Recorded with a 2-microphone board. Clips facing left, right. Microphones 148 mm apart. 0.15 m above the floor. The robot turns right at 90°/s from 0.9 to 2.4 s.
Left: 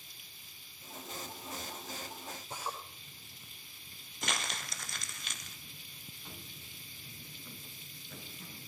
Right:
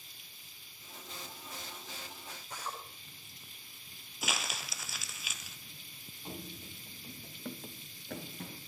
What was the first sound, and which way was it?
A drill, 25° left (ahead or behind).